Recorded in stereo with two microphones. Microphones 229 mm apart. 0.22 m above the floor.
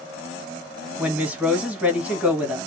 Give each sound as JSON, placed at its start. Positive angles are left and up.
{"t": 1.0, "sound": "a woman speaking", "side_deg": -5, "distance_m": 1.7}